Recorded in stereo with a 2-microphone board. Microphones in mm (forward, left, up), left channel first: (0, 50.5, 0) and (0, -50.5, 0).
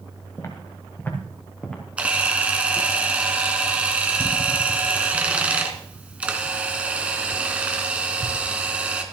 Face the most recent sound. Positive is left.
turn(degrees=-10)  # may be behind; listen again after turning